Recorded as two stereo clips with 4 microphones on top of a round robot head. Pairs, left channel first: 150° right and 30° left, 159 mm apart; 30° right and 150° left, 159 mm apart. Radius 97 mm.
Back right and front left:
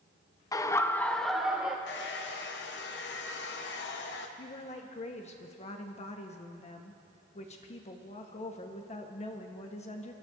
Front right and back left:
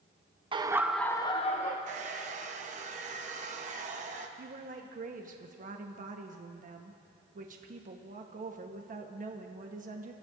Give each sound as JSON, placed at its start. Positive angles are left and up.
{"t": 0.5, "sound": "laughter", "azimuth_deg": 165, "distance_m": 0.8}
{"t": 1.9, "sound": "a hair dryer", "azimuth_deg": -165, "distance_m": 0.9}
{"t": 4.4, "sound": "a woman speaking", "azimuth_deg": 170, "distance_m": 1.0}